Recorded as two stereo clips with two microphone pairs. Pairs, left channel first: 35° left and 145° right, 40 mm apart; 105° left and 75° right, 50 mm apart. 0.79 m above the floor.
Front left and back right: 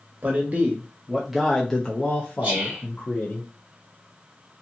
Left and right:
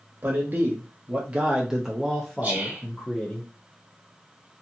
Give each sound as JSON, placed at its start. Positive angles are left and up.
{"t": 0.2, "sound": "a man speaking", "azimuth_deg": -110, "distance_m": 0.9}
{"t": 2.4, "sound": "whispering", "azimuth_deg": -95, "distance_m": 1.2}